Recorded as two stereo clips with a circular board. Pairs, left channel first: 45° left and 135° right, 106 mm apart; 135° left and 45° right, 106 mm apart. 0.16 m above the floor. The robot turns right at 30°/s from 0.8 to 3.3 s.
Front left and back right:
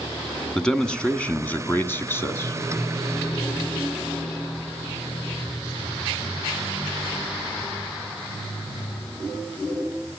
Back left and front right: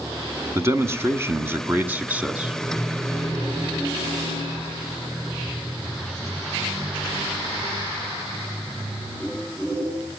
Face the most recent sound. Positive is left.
turn(degrees=45)